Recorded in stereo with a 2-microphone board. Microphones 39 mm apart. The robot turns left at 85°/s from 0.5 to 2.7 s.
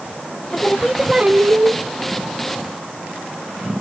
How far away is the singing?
About 0.8 m.